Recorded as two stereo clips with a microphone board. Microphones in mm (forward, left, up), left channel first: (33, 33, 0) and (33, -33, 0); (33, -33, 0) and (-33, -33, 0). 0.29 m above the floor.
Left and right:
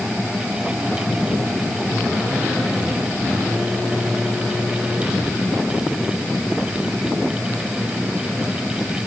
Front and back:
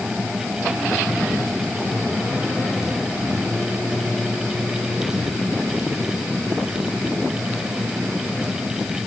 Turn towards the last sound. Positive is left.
No sound to turn to.